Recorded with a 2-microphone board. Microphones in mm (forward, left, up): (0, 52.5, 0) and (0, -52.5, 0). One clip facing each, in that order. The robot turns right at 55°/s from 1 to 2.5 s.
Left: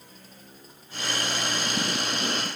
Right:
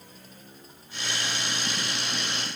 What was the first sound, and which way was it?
Only background noise.